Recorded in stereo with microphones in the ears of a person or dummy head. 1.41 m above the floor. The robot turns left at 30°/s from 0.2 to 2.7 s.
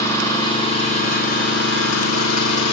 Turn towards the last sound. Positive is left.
turn(degrees=95)